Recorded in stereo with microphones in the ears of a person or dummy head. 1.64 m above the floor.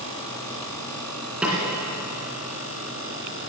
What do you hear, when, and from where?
1.4 s a snare drum: centre (ahead or behind), 2.5 m